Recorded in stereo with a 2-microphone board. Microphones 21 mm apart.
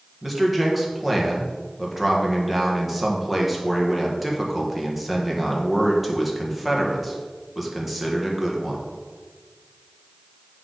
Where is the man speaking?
5° right (ahead or behind), 1.5 m.